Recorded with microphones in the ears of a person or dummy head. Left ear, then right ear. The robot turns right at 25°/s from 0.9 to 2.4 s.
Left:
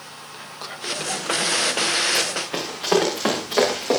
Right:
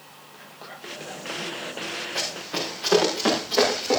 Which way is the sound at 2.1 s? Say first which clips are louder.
Left 5 dB; 30° left (ahead or behind).